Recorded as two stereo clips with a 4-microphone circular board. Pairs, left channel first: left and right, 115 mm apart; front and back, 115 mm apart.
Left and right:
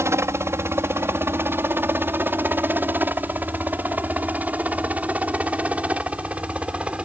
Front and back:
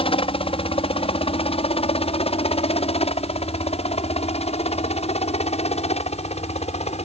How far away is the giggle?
No giggle in this recording.